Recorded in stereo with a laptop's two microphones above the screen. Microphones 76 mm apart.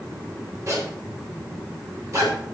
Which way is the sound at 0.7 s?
45° right (ahead or behind).